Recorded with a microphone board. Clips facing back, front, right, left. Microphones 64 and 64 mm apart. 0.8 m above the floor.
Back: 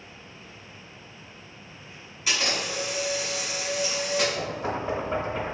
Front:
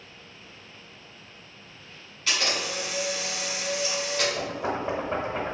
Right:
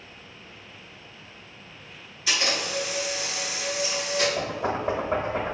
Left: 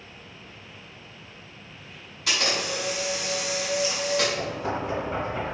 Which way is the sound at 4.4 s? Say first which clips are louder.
Even, right 1 dB; 70° right.